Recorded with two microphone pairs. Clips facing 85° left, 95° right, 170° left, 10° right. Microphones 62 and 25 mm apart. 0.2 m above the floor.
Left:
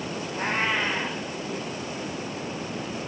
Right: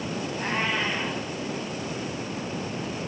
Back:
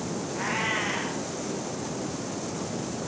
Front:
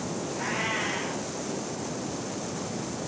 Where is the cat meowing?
110° left, 8 m.